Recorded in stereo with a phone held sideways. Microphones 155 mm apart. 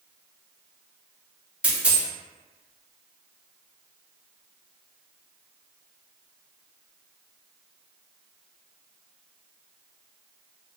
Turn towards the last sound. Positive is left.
turn(degrees=-5)  # may be behind; listen again after turning